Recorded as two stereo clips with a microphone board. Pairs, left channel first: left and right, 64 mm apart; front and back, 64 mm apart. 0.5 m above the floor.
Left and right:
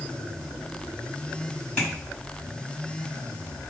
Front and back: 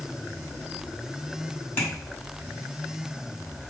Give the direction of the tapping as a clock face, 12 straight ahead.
11 o'clock.